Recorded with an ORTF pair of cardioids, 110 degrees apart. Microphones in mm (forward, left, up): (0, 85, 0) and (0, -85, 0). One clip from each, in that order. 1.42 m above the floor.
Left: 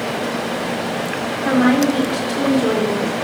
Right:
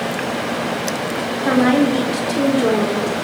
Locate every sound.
1.4 s a woman speaking: 10° right, 3.5 m